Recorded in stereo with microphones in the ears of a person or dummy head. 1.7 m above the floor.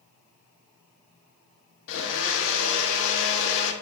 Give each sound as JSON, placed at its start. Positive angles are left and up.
{"t": 1.9, "sound": "a blender", "side_deg": 80, "distance_m": 1.5}